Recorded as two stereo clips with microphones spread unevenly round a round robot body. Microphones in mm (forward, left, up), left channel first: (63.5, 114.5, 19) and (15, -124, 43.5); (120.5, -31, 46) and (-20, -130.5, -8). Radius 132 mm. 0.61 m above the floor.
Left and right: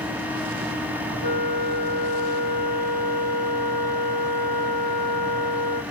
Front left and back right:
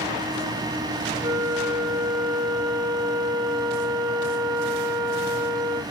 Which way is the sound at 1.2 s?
50° right.